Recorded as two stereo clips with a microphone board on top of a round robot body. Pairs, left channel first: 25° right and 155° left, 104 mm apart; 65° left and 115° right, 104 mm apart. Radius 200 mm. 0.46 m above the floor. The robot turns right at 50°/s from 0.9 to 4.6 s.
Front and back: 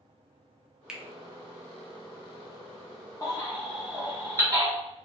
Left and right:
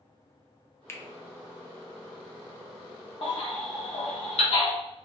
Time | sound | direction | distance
0.9 | a finger snap | 85° left | 0.7 m
3.2 | a baby crying | 35° left | 0.9 m